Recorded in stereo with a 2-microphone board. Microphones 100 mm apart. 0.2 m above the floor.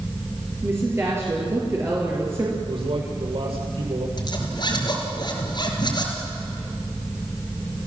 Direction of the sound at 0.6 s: 25° right (ahead or behind).